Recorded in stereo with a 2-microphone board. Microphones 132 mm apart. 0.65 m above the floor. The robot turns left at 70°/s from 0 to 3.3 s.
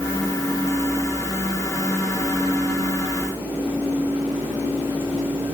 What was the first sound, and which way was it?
Only background noise.